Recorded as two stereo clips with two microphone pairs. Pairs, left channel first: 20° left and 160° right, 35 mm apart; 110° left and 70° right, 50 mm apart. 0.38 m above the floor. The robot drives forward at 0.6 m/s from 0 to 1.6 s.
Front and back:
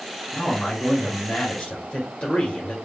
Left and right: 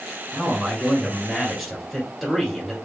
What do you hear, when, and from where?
0.3 s a man speaking: 20° left, 1.9 m; by 2.8 s 35° left, 1.5 m